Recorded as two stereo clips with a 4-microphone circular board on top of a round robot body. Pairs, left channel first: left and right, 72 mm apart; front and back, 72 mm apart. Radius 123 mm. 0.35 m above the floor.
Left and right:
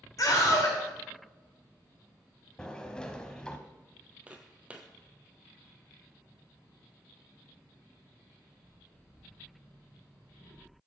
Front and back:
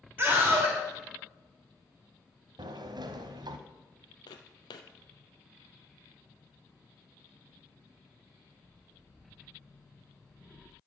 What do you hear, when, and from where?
0.2 s a scream: 115° left, 3 m
2.6 s a sliding door: 170° left, 0.9 m
4.3 s footsteps: 15° right, 0.8 m